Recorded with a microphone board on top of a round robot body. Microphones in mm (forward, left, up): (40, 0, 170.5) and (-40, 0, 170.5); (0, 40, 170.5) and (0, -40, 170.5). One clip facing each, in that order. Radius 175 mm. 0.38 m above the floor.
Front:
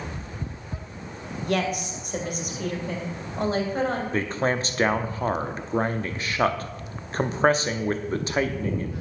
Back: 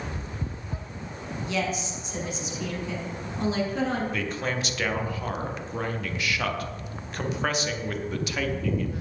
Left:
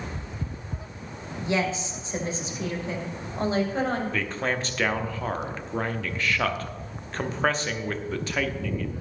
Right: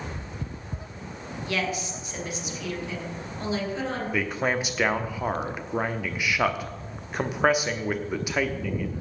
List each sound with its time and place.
1.4 s a woman speaking: 25° left, 2.5 m; by 4.0 s 45° left, 3.5 m
4.1 s a man speaking: 20° right, 1.0 m